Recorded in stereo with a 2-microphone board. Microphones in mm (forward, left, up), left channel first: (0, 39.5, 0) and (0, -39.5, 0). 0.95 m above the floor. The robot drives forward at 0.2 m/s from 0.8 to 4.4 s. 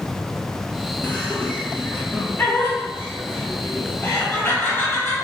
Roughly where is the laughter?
Left.